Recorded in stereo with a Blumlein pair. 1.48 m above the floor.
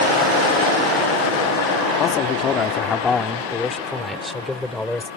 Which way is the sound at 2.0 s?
30° left.